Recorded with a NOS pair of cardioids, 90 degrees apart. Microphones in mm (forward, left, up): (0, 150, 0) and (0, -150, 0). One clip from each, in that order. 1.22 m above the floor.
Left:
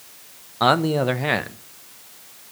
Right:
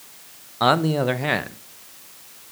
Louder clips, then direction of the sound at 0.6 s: Left 1 dB; 5° left.